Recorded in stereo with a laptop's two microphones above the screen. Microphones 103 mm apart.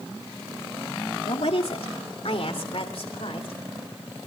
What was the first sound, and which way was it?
A woman speaking, 75° left (ahead or behind).